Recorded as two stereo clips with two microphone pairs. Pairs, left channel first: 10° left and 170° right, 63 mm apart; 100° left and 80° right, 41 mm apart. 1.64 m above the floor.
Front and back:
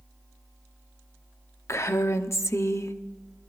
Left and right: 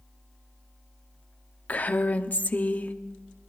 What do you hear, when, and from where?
1.7 s a woman speaking: 50° left, 0.8 m